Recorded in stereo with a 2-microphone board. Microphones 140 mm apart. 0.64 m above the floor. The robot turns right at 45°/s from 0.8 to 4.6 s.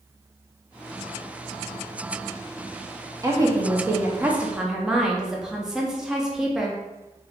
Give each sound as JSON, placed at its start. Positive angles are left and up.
{"t": 3.2, "sound": "a woman speaking", "side_deg": -25, "distance_m": 0.6}